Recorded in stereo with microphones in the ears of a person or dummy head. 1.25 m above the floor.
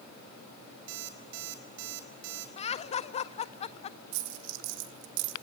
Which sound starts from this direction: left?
Laughter, at 2.6 s.